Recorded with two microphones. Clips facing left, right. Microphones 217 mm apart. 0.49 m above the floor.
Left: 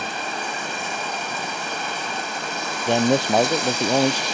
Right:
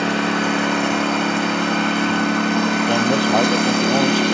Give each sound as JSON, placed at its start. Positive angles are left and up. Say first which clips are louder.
{"t": 0.0, "sound": "a lawn mower", "louder": "right 12 dB", "side_deg": -65}
{"t": 2.9, "sound": "a man speaking", "louder": "right 2 dB", "side_deg": 15}